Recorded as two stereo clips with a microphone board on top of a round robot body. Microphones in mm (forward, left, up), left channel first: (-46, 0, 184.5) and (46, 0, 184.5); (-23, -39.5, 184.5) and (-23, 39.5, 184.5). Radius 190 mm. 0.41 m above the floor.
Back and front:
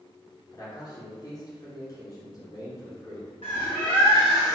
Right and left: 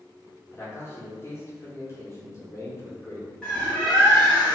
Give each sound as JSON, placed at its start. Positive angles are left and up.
{"t": 0.5, "sound": "a man speaking", "azimuth_deg": -140, "distance_m": 1.9}
{"t": 3.4, "sound": "a bird", "azimuth_deg": -170, "distance_m": 1.5}